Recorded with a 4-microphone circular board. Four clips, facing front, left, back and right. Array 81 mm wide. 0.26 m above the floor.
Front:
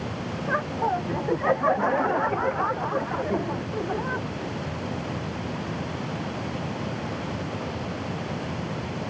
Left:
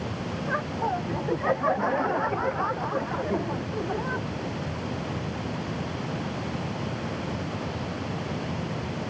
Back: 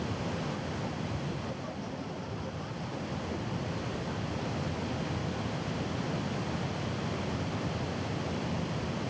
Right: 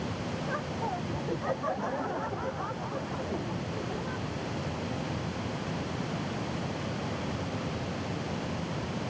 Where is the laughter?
20° left; by 4.3 s 35° left.